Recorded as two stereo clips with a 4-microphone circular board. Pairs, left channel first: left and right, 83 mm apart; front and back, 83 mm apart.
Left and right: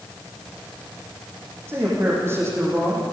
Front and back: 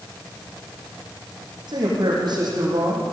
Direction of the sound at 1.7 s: 150° right.